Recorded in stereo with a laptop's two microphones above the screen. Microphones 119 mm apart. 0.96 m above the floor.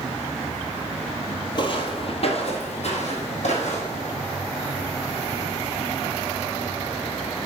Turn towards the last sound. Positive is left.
turn(degrees=65)  # may be behind; listen again after turning